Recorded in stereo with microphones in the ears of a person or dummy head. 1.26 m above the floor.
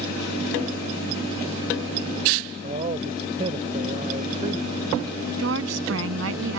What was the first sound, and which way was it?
A man speaking, 35° right (ahead or behind).